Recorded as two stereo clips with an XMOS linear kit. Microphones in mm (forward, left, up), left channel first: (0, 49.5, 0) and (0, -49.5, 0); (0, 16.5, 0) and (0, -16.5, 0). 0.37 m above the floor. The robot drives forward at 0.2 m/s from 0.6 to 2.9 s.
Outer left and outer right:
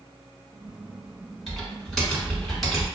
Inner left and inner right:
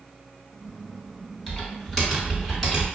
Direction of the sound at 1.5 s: Centre (ahead or behind).